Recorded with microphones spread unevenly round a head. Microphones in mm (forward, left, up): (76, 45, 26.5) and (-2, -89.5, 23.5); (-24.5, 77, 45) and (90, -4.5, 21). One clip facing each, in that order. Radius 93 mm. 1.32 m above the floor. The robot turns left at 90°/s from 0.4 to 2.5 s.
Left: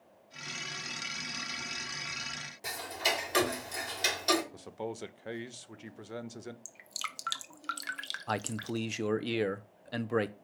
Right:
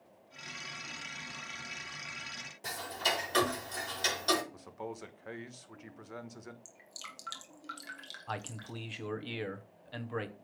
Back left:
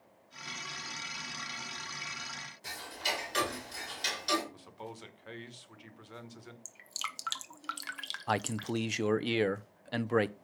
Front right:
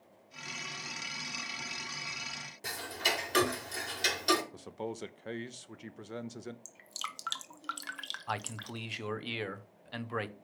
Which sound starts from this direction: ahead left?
Dripping, at 6.7 s.